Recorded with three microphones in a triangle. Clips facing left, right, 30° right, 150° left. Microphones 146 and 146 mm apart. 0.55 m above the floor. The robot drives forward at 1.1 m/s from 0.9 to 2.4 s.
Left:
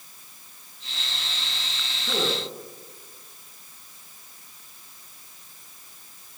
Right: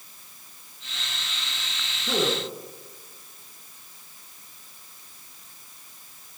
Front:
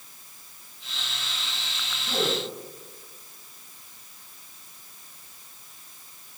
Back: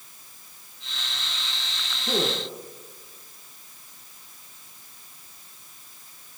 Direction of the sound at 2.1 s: 170° right.